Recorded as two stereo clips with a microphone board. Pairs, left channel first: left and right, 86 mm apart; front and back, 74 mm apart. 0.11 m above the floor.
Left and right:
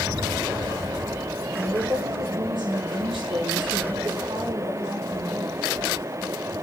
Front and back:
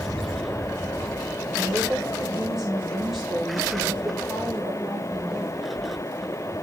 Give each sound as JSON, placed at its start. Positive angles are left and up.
{"t": 1.6, "sound": "a woman speaking", "azimuth_deg": -100, "distance_m": 8.0}